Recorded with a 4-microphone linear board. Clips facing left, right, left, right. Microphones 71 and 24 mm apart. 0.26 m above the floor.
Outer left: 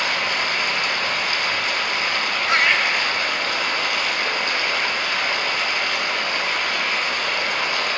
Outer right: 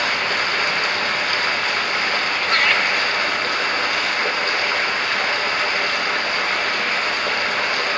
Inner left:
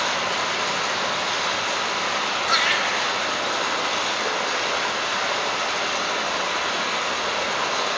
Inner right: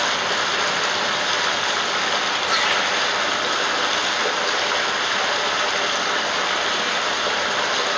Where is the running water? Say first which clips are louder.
Outer right 2 dB, inner right 2 dB; 50° right (ahead or behind), 1.2 m.